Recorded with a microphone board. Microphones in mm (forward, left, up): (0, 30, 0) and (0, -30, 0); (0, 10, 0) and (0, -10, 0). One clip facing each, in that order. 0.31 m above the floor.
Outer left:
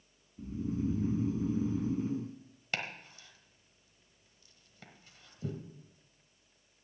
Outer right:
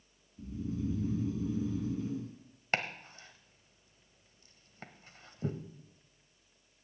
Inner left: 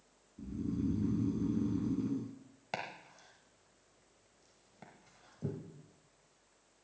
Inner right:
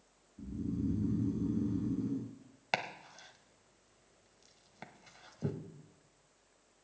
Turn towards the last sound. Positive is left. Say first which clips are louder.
# outer right 4 dB, inner right 5 dB
turn(degrees=-40)  # may be behind; listen again after turning